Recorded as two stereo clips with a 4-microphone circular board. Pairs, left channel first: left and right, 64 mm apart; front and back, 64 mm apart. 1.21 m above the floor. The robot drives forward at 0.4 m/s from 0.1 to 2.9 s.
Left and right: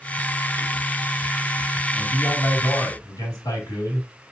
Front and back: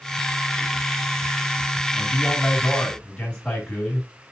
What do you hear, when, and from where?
1.9 s a man speaking: 70° left, 3 m; by 4.1 s 75° left, 2.5 m